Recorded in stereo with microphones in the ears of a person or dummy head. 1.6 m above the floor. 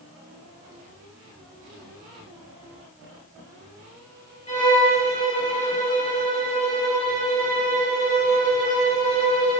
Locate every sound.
4.5 s a violin: 25° left (ahead or behind), 1.8 m